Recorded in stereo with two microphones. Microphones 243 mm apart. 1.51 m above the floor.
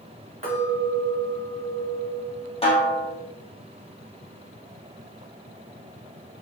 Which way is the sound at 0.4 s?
25° right (ahead or behind).